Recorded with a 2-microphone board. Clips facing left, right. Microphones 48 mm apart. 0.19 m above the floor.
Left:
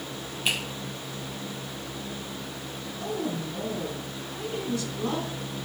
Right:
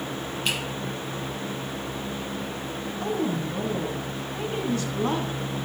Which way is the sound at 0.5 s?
5° left (ahead or behind).